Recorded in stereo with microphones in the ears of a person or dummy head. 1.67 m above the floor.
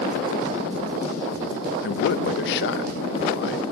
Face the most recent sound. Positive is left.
turn(degrees=60)  # may be behind; listen again after turning